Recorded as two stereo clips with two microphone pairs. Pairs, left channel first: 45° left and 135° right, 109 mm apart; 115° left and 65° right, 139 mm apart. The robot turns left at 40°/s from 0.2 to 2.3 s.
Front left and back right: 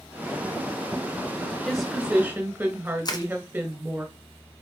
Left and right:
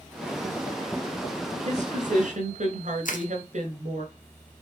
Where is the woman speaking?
40° right, 2.5 m; by 4.0 s 65° right, 2.5 m.